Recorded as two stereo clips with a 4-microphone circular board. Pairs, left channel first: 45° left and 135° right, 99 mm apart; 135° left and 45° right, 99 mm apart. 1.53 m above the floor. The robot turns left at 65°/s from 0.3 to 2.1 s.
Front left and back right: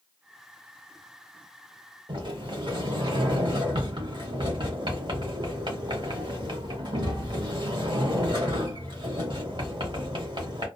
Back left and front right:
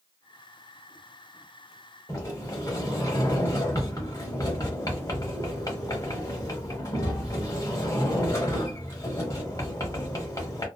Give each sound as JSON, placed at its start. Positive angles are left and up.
{"t": 2.1, "sound": "a sliding door", "azimuth_deg": -170, "distance_m": 1.0}